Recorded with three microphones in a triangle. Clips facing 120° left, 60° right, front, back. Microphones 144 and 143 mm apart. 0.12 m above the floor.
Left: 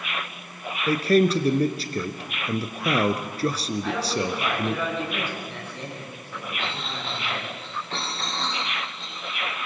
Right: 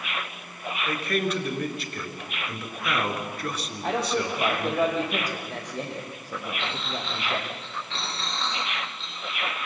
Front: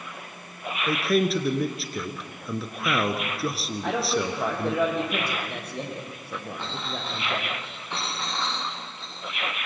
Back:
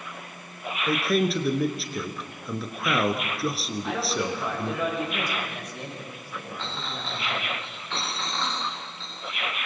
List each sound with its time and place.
0.9 s a man speaking: 90° left, 1.7 m
3.8 s a man speaking: 10° right, 6 m
6.6 s a clink: 75° left, 6.5 m